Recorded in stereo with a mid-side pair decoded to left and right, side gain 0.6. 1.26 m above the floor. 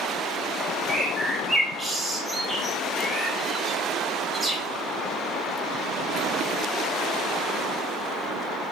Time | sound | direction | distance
0.9 | a bird | 10° right | 0.9 m